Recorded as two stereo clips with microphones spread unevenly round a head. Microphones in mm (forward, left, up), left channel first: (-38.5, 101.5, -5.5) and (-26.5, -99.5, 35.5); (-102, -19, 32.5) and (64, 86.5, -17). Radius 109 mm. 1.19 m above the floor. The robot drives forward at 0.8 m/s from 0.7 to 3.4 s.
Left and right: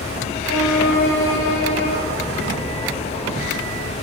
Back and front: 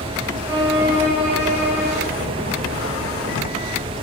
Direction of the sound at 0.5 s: 110° left.